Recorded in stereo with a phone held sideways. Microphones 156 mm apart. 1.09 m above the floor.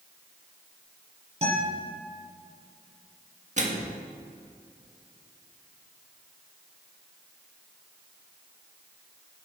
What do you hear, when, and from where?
1.4 s a guitar: 40° right (ahead or behind), 5 m
3.6 s a microwave: 50° right (ahead or behind), 1.6 m